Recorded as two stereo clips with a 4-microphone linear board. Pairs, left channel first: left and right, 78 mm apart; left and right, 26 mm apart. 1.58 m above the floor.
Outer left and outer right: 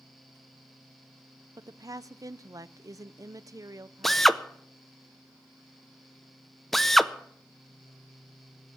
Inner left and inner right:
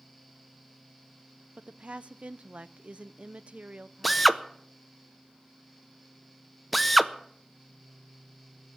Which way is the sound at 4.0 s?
5° left (ahead or behind).